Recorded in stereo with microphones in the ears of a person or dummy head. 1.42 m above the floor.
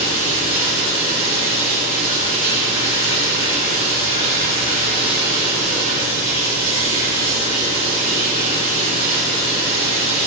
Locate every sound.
0.0 s running water: 35° left (ahead or behind), 5 m